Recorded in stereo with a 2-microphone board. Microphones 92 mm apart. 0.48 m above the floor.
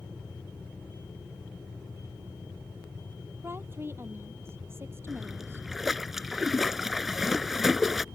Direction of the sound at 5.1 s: 5° right (ahead or behind).